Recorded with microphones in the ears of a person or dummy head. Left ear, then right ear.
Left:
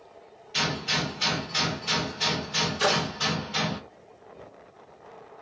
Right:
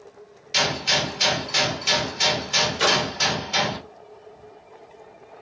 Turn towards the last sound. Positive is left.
turn(degrees=-10)  # may be behind; listen again after turning